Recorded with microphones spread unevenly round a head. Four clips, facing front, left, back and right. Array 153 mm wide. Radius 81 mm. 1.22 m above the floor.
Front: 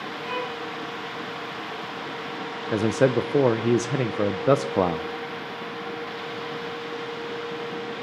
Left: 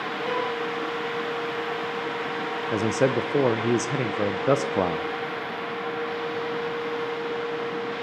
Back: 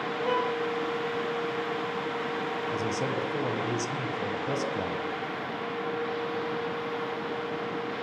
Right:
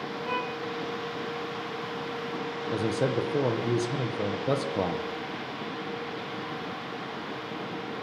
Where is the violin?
155° left, 6.5 m.